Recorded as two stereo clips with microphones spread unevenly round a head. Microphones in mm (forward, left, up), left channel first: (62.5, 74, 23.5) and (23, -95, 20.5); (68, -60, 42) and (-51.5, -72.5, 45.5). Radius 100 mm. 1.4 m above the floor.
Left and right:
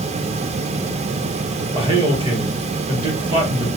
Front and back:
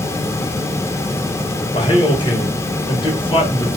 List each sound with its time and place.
1.7 s a man speaking: 45° right, 1.2 m